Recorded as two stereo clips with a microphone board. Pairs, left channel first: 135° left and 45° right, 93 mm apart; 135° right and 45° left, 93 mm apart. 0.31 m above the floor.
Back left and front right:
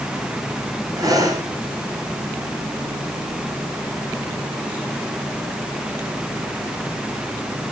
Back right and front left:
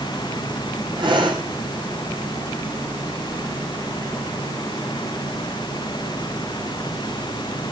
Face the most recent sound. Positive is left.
turn(degrees=5)